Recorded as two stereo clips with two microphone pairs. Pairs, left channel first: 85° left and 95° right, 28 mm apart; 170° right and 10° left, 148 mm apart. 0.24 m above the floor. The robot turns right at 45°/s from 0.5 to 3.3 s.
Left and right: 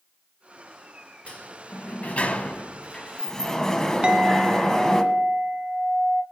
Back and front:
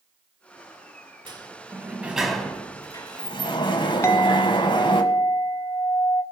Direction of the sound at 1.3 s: 55° left.